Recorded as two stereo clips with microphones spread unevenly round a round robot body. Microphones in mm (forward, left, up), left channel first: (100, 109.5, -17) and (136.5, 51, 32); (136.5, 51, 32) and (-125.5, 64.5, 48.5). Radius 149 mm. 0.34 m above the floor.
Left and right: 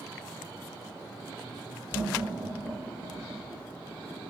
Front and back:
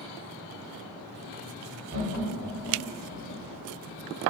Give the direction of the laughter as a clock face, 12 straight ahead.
7 o'clock.